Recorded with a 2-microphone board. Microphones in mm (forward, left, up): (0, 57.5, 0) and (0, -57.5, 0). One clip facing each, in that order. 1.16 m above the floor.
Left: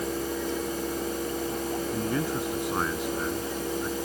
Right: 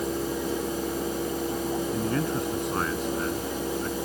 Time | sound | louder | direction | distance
1.9 | a man speaking | right 1 dB | centre (ahead or behind) | ?